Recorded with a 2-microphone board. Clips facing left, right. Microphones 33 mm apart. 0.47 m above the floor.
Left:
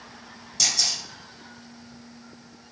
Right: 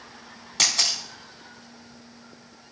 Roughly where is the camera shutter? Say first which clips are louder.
Right 2 dB; right.